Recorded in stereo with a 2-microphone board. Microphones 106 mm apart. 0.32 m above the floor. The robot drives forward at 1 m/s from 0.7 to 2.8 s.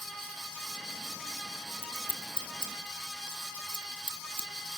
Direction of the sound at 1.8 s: 70° right (ahead or behind).